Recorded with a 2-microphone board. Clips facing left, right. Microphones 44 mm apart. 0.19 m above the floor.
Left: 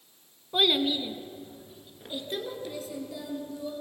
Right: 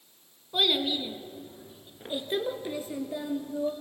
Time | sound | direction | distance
0.5 | a child speaking | 15° left (ahead or behind) | 1.3 m